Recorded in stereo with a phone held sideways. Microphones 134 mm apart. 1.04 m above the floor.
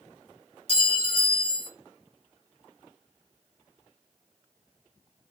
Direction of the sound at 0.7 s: 50° right (ahead or behind).